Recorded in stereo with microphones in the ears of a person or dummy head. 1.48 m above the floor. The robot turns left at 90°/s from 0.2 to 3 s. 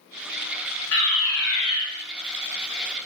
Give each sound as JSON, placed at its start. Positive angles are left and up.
{"t": 0.9, "sound": "a fire alarm", "azimuth_deg": 100, "distance_m": 5.5}